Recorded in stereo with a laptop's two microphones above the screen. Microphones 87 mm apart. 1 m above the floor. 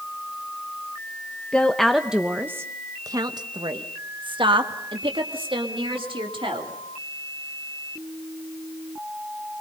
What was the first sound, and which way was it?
A woman speaking, 10° left (ahead or behind).